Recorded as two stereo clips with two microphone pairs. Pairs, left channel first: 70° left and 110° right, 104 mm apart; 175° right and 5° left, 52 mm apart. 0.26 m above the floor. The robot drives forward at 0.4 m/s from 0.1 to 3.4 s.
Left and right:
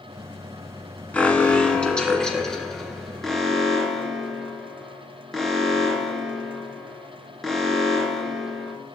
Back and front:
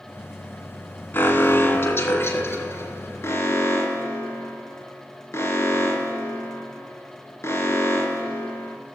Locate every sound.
1.1 s an alarm: 140° left, 1.5 m; by 8.8 s 155° left, 2.5 m